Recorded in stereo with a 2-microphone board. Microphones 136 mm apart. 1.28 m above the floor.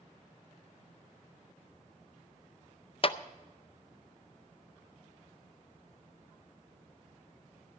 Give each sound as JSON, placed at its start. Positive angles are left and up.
{"t": 3.0, "sound": "a clap", "side_deg": 40, "distance_m": 0.5}